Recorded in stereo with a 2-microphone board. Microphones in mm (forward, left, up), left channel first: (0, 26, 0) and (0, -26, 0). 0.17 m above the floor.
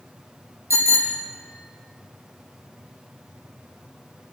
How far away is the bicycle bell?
About 4.5 m.